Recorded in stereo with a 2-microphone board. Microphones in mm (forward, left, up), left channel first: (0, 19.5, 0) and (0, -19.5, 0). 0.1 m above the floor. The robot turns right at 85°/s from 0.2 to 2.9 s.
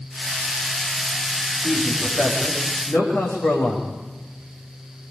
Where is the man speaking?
15° left, 8 m; by 3.9 s 120° left, 8 m.